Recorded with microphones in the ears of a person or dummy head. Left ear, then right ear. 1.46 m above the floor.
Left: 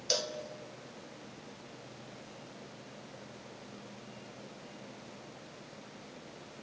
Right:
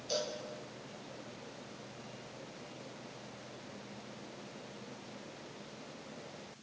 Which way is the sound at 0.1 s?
60° left (ahead or behind).